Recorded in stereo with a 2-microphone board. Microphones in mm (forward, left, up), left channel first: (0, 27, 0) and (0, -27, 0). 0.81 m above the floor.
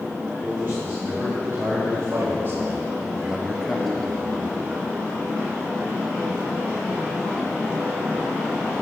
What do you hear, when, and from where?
0.4 s a man speaking: 35° right (ahead or behind), 3.5 m; by 4.6 s 10° left (ahead or behind), 2.5 m